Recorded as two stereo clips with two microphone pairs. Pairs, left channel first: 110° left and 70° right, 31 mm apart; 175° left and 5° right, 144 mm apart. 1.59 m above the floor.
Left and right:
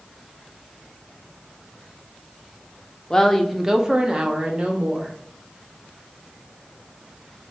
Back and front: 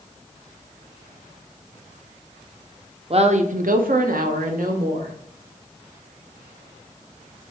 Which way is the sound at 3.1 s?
40° left.